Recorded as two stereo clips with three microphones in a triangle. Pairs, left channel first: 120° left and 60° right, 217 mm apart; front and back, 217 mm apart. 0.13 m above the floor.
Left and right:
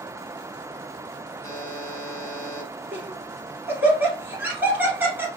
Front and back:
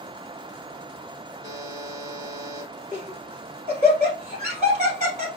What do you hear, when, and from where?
1.4 s a buzzer: 160° left, 1.8 m
2.9 s laughter: 140° right, 1.7 m